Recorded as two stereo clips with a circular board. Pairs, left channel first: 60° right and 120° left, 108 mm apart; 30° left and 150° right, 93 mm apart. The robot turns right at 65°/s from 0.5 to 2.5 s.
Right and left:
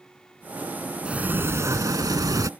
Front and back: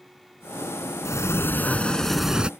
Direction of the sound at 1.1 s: 45° left.